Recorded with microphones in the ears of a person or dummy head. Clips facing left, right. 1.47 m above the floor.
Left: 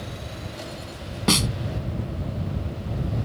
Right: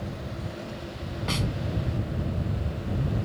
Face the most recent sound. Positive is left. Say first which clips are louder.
# left 8 dB
turn(degrees=65)  # may be behind; listen again after turning